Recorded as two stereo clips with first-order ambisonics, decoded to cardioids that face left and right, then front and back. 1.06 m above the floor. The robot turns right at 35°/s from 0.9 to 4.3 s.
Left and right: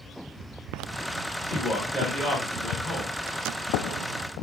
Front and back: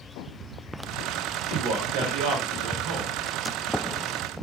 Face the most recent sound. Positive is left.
turn(degrees=-100)